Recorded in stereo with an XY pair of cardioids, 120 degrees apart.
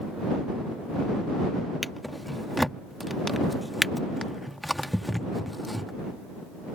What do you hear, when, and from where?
1.8 s a drawer: straight ahead